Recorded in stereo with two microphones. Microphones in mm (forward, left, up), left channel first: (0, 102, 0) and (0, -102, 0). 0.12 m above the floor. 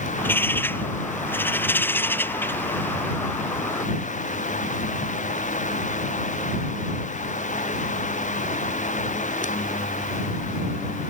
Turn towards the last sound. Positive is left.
turn(degrees=10)  # may be behind; listen again after turning